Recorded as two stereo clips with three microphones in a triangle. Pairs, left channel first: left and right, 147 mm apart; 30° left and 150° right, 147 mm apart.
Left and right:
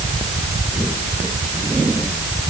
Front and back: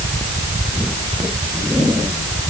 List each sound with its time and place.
Only background noise.